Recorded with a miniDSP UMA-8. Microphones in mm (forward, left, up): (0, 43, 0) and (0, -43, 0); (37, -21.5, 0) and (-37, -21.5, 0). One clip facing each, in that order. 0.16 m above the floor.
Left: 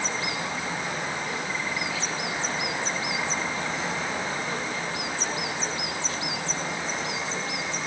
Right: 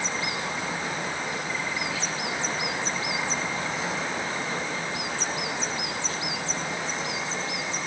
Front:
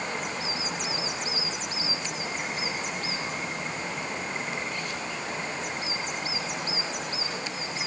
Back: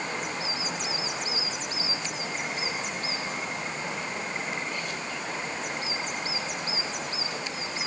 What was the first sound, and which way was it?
Only background noise.